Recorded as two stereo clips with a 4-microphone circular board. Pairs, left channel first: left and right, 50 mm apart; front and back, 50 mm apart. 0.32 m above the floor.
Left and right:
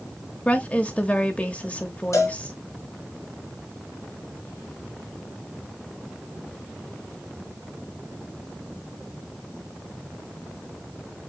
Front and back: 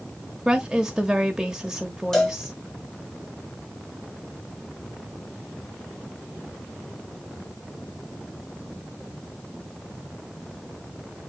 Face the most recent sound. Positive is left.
turn(degrees=80)